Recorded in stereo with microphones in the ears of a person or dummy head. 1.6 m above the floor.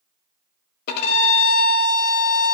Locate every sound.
0.9 s a violin: 55° left (ahead or behind), 0.9 m